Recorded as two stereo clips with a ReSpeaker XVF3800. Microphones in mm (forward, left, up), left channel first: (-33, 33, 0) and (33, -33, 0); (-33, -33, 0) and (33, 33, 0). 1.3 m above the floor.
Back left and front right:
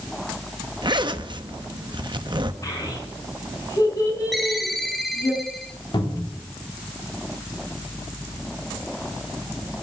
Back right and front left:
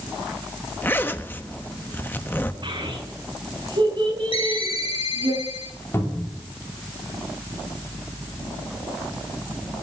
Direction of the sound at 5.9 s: 165° left.